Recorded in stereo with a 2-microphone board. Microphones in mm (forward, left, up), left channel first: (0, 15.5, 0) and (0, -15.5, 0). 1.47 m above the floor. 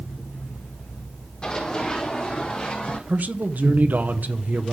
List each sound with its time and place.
1.4 s running footsteps: 30° left (ahead or behind), 4.5 m; by 3.0 s 45° left (ahead or behind), 5 m
3.1 s a man speaking: 65° right (ahead or behind), 1.0 m